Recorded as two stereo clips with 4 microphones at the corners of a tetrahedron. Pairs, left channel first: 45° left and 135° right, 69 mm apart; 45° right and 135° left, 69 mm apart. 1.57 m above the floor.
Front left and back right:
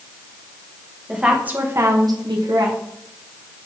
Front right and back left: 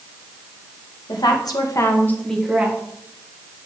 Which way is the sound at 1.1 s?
55° right.